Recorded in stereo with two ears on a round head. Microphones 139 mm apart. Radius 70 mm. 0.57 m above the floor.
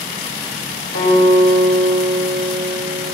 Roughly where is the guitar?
Left.